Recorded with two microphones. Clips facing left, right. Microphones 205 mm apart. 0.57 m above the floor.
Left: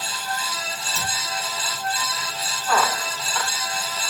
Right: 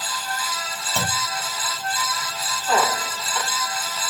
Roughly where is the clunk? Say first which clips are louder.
Right 8 dB; right.